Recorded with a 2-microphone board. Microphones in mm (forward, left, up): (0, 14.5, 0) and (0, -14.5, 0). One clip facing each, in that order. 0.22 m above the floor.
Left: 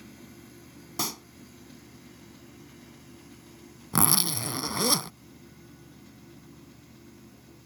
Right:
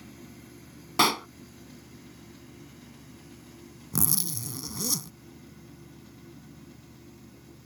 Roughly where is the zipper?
Left.